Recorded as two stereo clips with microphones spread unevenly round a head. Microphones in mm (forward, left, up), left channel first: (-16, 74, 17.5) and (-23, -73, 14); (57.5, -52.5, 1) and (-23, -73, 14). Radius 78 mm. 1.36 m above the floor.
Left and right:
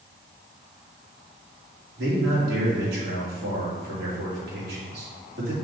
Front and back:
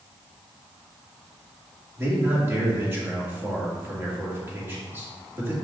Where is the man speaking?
105° right, 2.5 m.